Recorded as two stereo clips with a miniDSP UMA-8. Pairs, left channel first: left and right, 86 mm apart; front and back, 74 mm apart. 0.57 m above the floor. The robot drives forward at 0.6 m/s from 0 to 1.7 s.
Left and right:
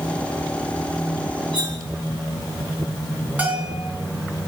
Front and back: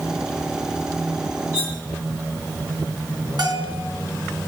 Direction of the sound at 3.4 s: 160° right.